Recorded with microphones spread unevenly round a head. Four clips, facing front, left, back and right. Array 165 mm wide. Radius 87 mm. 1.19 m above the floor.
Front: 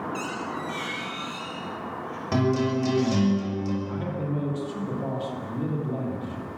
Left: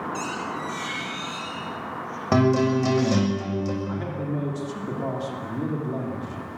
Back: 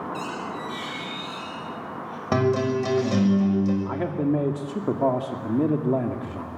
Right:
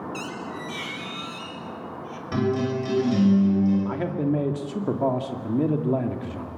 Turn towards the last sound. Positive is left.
turn(degrees=-150)